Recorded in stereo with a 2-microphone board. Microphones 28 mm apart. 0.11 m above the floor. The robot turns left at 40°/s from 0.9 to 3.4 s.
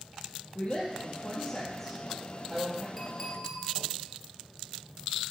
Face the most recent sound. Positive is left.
turn(degrees=10)  # may be behind; listen again after turning